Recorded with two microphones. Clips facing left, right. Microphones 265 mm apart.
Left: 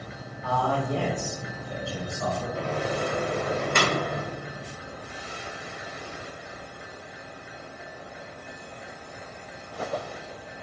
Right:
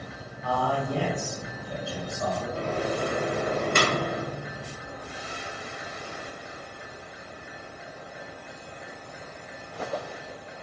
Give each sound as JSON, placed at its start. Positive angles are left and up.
{"t": 0.4, "sound": "a man speaking", "side_deg": -5, "distance_m": 1.2}
{"t": 2.5, "sound": "a microwave", "side_deg": -40, "distance_m": 0.6}